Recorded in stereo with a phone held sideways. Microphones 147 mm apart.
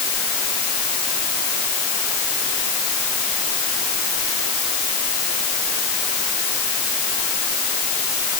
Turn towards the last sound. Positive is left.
No sound to turn to.